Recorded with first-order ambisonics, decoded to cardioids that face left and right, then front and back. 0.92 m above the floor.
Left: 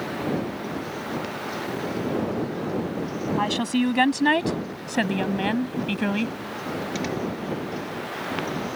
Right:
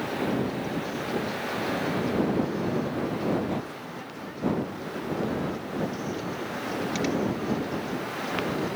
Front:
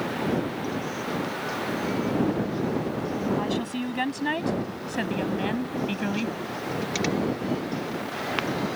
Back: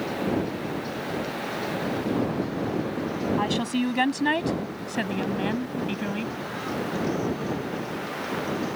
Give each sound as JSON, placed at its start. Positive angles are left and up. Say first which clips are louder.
{"t": 3.4, "sound": "a woman speaking", "louder": "left 8 dB, back 3 dB", "azimuth_deg": 110}